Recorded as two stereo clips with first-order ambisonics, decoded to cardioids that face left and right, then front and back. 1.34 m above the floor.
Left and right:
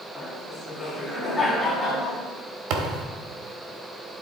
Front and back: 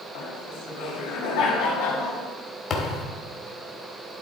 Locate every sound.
0.1 s laughter: 5° left, 2.5 m
2.7 s a thud: 65° right, 1.3 m